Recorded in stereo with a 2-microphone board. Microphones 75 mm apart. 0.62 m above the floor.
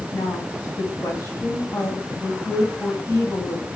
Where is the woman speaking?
55° left (ahead or behind), 4 m.